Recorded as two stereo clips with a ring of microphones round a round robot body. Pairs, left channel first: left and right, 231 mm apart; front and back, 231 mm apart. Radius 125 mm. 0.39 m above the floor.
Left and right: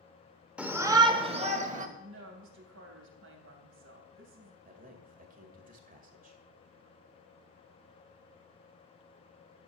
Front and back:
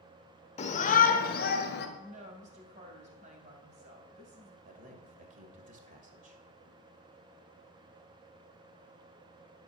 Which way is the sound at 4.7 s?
135° right.